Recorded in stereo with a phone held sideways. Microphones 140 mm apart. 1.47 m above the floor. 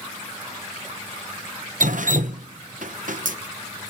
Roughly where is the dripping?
Right.